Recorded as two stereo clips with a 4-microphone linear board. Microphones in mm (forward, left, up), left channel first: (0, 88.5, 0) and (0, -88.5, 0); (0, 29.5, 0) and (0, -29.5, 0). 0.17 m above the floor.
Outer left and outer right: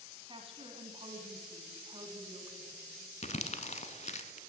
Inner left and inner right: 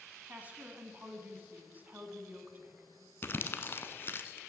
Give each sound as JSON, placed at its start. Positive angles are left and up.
{"t": 0.3, "sound": "a woman speaking", "side_deg": -30, "distance_m": 1.3}
{"t": 3.2, "sound": "crumpling", "side_deg": 40, "distance_m": 0.8}